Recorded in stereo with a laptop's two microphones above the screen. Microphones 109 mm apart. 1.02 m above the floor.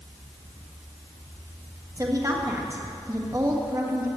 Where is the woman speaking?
30° right (ahead or behind), 1.5 m.